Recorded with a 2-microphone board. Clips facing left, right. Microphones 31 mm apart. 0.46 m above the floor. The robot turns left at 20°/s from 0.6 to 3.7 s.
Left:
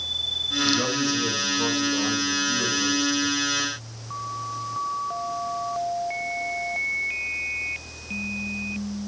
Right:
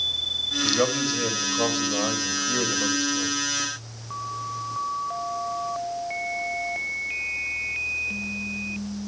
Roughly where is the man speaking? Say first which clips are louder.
Right 1 dB; ahead right.